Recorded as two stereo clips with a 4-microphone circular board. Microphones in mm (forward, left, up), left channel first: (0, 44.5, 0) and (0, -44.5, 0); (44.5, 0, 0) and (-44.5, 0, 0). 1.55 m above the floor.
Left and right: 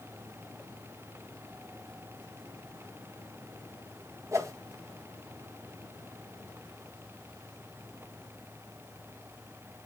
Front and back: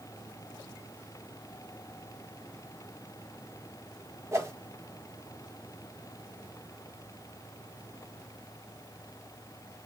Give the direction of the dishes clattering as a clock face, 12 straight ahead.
I don't hear dishes clattering.